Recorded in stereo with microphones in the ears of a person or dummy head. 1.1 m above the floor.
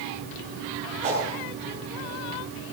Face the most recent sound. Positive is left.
turn(degrees=-40)  # may be behind; listen again after turning